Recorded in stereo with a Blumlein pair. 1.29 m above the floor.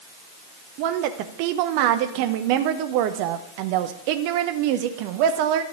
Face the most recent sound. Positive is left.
turn(degrees=-45)